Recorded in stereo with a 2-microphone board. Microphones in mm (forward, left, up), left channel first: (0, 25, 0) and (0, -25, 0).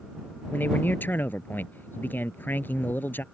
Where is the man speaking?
40° left (ahead or behind).